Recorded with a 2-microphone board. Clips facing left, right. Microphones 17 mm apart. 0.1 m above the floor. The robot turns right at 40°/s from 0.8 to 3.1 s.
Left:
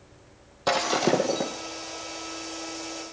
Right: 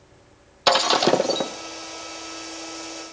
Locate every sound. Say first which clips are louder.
0.7 s breaking glass: right 5 dB; 65° right (ahead or behind), 1.2 m; by 1.5 s 45° right (ahead or behind), 1.2 m